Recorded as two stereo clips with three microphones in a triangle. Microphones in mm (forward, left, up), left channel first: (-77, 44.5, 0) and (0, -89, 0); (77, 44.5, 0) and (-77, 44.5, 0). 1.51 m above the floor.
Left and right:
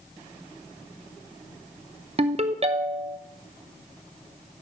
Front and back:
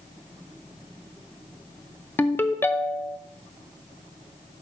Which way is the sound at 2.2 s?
70° right.